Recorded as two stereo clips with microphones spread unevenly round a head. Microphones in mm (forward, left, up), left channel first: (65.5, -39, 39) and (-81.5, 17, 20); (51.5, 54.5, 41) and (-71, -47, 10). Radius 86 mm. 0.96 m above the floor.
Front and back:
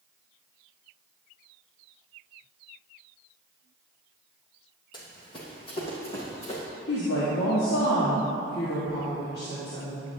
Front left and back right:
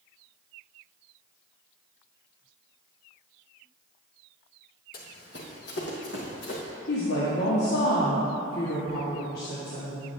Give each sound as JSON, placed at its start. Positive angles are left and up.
{"t": 4.9, "sound": "running footsteps", "azimuth_deg": 35, "distance_m": 1.9}
{"t": 6.9, "sound": "a woman speaking", "azimuth_deg": 10, "distance_m": 1.7}